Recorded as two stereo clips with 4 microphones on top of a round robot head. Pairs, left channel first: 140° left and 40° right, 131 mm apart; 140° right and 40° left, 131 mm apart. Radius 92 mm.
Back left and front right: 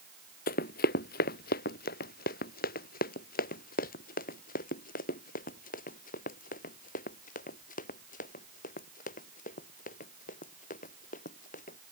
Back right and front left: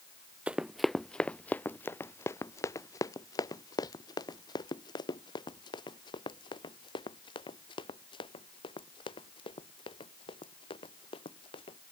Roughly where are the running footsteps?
Behind left.